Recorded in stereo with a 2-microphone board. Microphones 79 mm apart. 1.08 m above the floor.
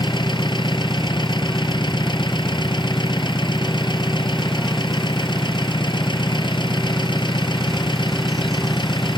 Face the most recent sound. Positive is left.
turn(degrees=75)  # may be behind; listen again after turning